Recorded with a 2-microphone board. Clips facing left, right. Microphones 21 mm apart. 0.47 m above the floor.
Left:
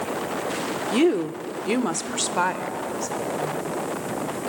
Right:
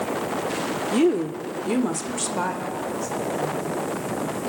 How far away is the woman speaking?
About 0.7 m.